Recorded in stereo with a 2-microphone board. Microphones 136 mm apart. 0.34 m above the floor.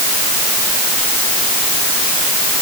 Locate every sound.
Only background noise.